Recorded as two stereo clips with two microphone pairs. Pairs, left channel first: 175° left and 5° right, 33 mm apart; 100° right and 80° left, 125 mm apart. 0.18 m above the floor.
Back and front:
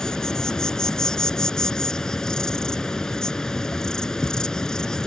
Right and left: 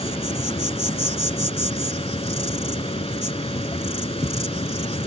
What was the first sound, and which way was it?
An insect, 120° right.